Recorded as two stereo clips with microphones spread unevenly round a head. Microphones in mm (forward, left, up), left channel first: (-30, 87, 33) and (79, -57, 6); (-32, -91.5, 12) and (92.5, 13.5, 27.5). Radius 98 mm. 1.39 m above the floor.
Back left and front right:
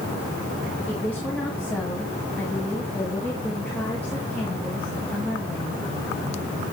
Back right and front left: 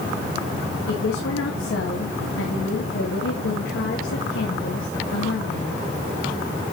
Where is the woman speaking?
150° right, 1.9 m.